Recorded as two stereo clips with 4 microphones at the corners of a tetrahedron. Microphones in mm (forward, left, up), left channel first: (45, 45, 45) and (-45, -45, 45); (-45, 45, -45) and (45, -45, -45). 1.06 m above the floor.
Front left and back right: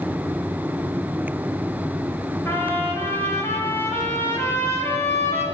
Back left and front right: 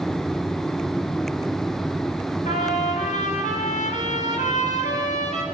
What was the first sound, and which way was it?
A trumpet, 115° left.